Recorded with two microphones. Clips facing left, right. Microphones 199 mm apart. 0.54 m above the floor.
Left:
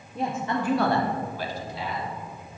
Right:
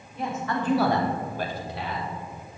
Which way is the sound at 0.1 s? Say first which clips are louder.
Left 1 dB; 40° left (ahead or behind).